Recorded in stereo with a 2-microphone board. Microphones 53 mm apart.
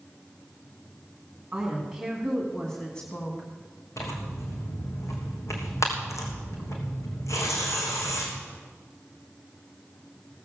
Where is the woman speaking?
10° right (ahead or behind), 2 m; by 3.5 s 30° left (ahead or behind), 2 m.